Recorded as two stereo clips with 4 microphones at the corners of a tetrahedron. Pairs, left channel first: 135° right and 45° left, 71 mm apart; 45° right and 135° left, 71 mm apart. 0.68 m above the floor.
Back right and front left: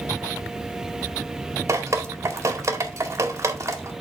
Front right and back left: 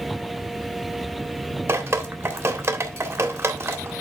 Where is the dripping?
90° left, 1.8 m.